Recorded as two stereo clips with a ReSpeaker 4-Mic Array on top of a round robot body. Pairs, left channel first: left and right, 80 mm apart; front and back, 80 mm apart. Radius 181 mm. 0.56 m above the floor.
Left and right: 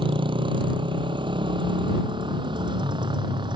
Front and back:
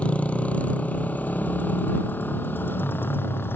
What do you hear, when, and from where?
0.0 s a motorcycle: 75° right; by 3.6 s 65° right